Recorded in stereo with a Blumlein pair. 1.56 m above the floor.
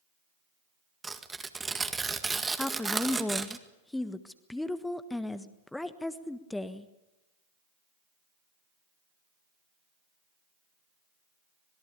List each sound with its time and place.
1.0 s tearing paper: 10° right, 1.8 m
2.6 s a woman speaking: 5° left, 1.4 m